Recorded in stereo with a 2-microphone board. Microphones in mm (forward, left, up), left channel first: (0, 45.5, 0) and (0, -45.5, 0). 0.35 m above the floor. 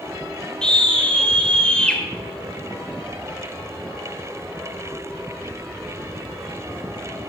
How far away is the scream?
About 1.5 m.